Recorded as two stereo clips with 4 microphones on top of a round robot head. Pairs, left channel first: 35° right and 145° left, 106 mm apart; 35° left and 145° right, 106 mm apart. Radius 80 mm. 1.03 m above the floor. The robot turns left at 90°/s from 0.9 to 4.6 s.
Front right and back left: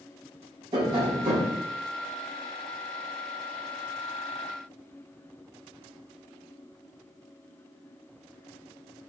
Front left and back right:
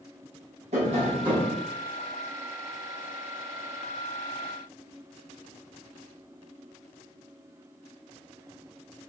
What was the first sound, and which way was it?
Tapping, 165° right.